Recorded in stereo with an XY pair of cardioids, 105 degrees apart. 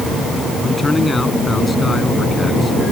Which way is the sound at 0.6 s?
15° left.